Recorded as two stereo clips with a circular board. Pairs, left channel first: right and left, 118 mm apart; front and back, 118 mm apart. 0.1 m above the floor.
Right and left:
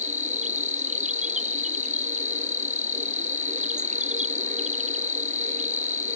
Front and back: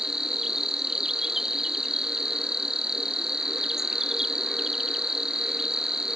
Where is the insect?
95° left.